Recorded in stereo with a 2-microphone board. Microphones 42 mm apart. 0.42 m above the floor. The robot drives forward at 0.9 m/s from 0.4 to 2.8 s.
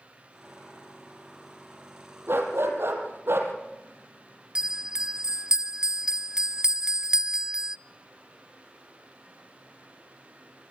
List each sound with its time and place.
2.3 s a dog barking: 65° right (ahead or behind), 5.5 m; by 3.5 s 70° right (ahead or behind), 5 m
4.5 s a bell: 15° right (ahead or behind), 0.6 m